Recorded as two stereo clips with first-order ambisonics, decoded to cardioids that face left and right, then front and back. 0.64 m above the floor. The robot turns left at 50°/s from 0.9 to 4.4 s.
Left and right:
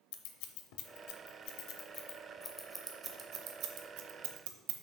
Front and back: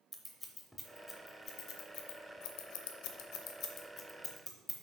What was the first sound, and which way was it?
Scissors, 90° left.